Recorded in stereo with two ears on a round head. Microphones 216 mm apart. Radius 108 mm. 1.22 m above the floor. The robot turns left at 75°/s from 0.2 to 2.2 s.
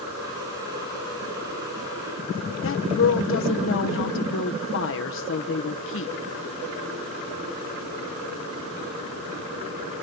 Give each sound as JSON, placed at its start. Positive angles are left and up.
{"t": 2.6, "sound": "a woman speaking", "side_deg": 55, "distance_m": 0.9}